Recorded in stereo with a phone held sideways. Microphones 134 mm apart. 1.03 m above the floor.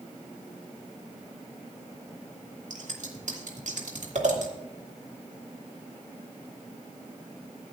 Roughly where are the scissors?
Right.